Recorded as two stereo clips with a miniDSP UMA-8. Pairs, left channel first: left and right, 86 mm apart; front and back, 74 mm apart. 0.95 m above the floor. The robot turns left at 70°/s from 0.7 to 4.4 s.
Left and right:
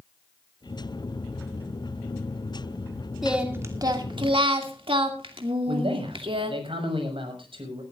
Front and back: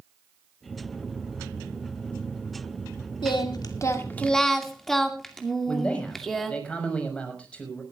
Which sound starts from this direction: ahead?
Singing, at 3.2 s.